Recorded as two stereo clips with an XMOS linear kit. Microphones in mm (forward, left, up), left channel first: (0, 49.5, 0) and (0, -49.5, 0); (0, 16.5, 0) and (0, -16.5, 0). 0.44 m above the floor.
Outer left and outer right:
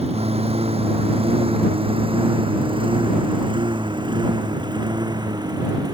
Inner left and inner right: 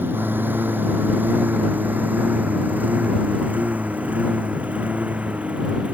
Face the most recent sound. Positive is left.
turn(degrees=-40)  # may be behind; listen again after turning